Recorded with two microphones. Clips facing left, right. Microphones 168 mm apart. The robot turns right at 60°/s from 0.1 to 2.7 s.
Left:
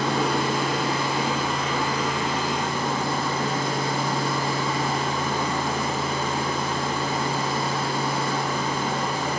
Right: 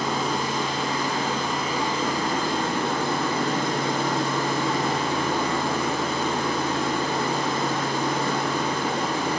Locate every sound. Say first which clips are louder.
0.0 s running water: left 2 dB; 95° left, 2 m; by 9.4 s 110° right, 2 m